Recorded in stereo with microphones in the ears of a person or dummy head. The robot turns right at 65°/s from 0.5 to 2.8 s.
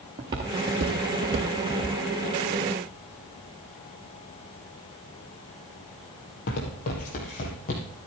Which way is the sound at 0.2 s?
20° right (ahead or behind).